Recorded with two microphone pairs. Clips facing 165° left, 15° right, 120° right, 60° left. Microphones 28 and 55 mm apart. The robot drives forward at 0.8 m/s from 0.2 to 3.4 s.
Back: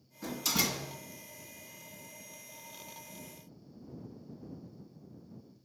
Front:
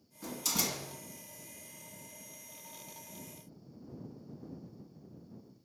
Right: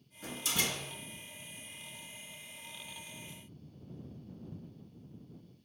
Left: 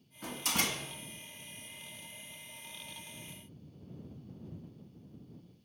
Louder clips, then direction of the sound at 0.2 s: Back 3 dB, left 1 dB; 80° left.